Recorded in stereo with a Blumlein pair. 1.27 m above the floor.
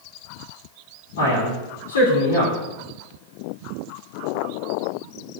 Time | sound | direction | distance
1.2 | a man speaking | 60° left | 3 m